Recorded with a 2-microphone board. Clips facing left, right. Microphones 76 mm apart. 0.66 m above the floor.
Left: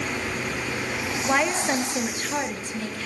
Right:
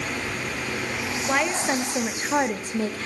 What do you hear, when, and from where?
1.2 s a woman speaking: 10° left (ahead or behind), 0.9 m; by 3.1 s 40° right (ahead or behind), 0.8 m